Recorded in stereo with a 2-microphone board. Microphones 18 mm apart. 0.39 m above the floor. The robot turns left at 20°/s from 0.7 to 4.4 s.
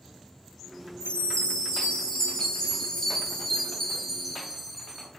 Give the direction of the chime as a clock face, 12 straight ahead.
10 o'clock.